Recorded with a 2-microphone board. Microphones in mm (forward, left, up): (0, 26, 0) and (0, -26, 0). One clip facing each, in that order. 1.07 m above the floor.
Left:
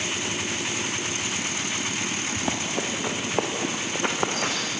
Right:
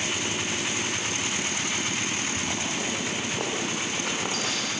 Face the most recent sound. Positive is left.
turn(degrees=55)  # may be behind; listen again after turning